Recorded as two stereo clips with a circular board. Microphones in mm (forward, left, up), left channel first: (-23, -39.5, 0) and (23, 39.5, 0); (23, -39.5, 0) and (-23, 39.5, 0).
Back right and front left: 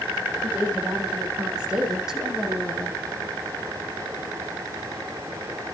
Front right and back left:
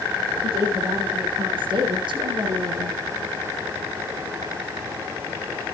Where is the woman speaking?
135° left, 7.5 m; by 3.0 s 150° left, 4.5 m.